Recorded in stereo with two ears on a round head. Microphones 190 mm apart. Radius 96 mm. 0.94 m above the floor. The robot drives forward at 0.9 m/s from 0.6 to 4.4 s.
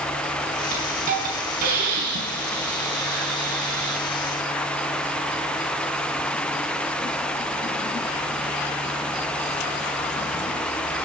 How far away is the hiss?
About 5 m.